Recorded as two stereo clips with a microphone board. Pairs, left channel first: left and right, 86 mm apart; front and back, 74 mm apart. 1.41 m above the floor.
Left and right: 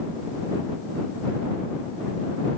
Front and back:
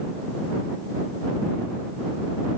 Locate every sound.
Only background noise.